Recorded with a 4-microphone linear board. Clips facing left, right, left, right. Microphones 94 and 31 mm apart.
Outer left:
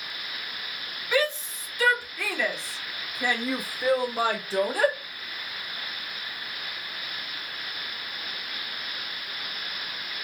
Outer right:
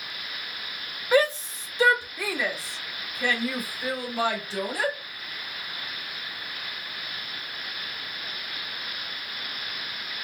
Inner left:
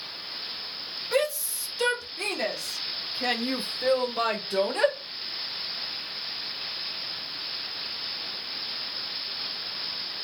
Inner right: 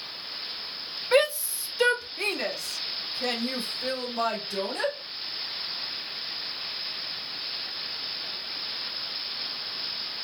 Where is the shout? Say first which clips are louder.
Outer right 4 dB, inner right 4 dB; 40° right (ahead or behind), 1.4 m; by 5.0 s 50° left (ahead or behind), 1.6 m.